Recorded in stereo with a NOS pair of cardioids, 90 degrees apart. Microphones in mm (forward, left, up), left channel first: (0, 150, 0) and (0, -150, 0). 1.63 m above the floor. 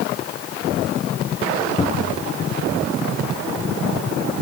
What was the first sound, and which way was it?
A cupboard door, 20° left.